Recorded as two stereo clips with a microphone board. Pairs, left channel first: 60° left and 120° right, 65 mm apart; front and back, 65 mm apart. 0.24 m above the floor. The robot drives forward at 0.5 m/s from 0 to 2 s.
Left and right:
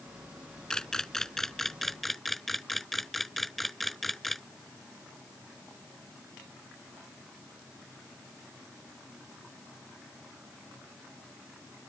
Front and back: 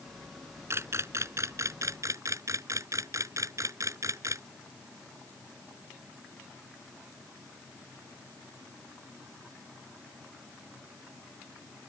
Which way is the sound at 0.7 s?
140° left.